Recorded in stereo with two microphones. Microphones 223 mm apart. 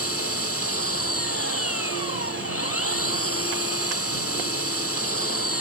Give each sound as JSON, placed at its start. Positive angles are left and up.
{"t": 0.0, "sound": "an engine running", "side_deg": 85}